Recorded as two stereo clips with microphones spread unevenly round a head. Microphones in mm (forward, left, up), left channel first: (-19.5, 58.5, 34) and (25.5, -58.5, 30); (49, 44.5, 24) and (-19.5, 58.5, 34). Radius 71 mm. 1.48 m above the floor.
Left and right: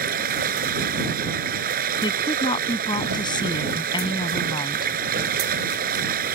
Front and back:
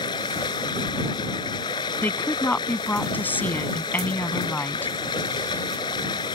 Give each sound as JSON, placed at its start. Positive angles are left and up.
{"t": 0.0, "sound": "running water", "azimuth_deg": -55}
{"t": 2.0, "sound": "a woman speaking", "azimuth_deg": 55}